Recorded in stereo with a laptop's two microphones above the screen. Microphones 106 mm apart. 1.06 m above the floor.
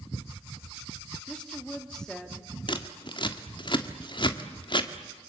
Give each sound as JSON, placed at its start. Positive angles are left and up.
{"t": 1.3, "sound": "a woman speaking", "side_deg": 5, "distance_m": 1.7}
{"t": 2.7, "sound": "scissors", "side_deg": 50, "distance_m": 1.5}